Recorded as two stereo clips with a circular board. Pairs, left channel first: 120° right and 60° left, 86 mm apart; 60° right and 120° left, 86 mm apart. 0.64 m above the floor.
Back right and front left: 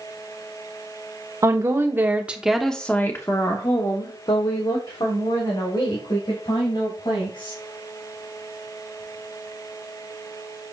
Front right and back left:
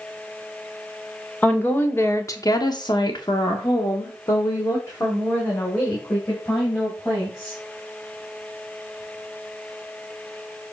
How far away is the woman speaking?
About 1.5 m.